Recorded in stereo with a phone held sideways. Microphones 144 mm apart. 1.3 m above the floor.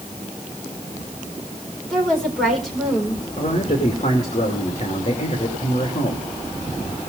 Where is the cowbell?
No cowbell in this recording.